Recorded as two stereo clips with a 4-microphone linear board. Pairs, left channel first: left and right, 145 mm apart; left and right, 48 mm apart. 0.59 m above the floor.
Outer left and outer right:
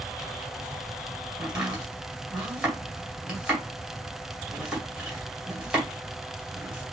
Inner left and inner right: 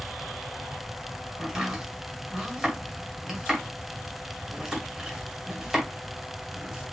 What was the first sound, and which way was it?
Chopping, 5° right (ahead or behind).